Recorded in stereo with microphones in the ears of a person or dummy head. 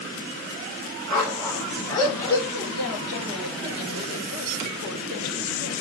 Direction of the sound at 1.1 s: 10° left (ahead or behind).